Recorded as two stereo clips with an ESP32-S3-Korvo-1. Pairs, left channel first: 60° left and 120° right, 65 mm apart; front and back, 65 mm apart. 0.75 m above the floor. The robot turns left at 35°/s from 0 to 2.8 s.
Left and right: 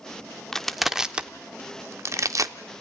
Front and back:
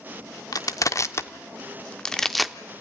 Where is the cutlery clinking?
I don't hear cutlery clinking.